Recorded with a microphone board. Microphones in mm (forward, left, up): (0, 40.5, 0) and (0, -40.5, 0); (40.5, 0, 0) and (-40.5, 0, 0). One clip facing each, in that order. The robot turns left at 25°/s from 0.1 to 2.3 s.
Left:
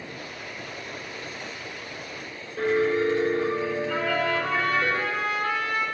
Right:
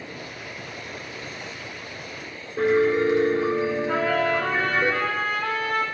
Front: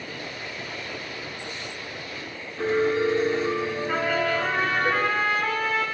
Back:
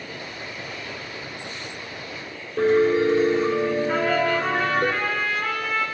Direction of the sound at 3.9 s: 80° right.